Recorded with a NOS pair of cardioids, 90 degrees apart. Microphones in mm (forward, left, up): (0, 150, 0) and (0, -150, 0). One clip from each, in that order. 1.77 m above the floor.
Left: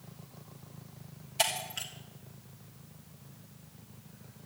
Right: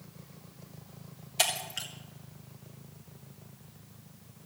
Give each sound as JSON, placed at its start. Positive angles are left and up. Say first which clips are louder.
{"t": 1.4, "sound": "breaking glass", "louder": "right 1 dB", "azimuth_deg": -15, "distance_m": 3.0}